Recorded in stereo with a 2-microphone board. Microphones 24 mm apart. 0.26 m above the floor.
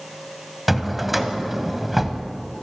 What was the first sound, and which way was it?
A drawer, 5° right (ahead or behind).